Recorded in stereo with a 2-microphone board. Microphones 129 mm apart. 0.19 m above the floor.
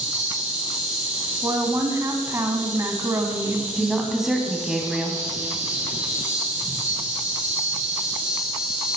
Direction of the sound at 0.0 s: 15° right (ahead or behind).